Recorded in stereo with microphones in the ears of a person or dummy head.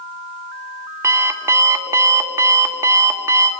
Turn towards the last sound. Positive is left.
turn(degrees=-15)  # may be behind; listen again after turning